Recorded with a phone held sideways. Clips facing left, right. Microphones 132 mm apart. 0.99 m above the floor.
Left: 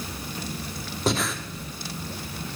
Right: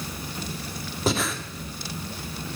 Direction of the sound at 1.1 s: Centre (ahead or behind).